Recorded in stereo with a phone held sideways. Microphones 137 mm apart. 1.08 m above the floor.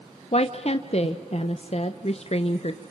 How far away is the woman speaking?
About 0.8 m.